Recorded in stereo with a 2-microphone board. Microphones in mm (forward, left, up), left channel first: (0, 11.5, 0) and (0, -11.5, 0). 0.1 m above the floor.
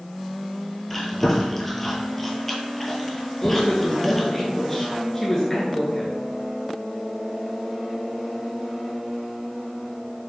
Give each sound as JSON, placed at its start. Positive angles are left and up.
{"t": 0.9, "sound": "chewing", "side_deg": 5, "distance_m": 1.2}
{"t": 3.4, "sound": "a woman speaking", "side_deg": 15, "distance_m": 1.2}